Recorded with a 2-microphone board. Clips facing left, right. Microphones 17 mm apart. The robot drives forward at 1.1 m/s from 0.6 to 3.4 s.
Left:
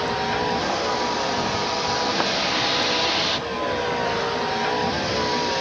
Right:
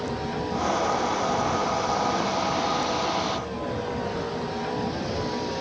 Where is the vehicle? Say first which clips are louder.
Left 6 dB; 40° left (ahead or behind); by 5.6 s 35° left (ahead or behind).